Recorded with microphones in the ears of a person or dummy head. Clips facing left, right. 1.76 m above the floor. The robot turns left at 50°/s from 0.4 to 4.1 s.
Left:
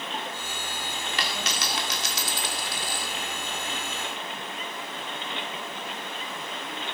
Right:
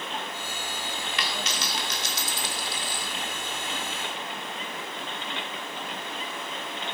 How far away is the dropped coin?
About 2.5 m.